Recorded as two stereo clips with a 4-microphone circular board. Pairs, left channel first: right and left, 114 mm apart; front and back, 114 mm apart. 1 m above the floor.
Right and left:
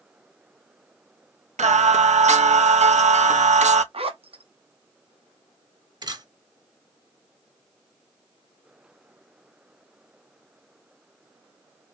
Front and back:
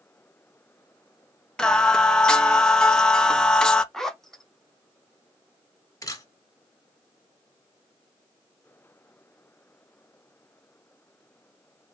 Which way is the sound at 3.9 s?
85° left.